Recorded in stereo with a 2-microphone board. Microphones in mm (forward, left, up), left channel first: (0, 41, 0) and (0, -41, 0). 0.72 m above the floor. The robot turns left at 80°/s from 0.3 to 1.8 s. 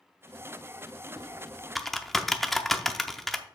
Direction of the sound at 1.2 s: 45° right (ahead or behind).